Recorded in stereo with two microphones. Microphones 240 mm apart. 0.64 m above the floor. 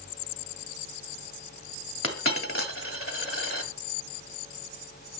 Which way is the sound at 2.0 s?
65° left (ahead or behind).